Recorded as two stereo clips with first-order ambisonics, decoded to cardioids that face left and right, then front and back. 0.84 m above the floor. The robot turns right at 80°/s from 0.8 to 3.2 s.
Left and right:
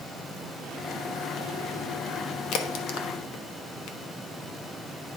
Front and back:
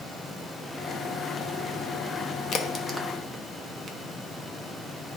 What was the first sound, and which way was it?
A crack, 55° left.